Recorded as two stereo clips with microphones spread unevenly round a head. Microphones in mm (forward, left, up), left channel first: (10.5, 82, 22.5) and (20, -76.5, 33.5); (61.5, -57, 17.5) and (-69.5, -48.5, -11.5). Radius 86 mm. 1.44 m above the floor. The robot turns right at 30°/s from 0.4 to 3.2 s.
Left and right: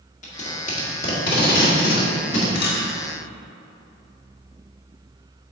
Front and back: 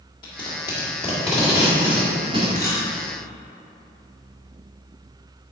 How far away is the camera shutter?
About 1.6 m.